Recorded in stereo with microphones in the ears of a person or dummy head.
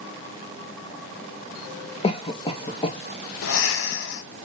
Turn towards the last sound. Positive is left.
turn(degrees=80)